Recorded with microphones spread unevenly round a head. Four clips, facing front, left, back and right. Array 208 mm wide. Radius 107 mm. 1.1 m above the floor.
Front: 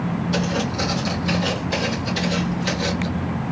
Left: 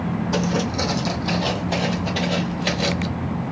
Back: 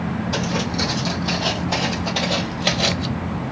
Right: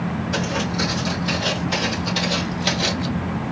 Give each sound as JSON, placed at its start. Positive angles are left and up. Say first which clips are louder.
{"t": 0.3, "sound": "footsteps", "louder": "left 3 dB, front 1 dB", "azimuth_deg": 100, "distance_m": 2.0}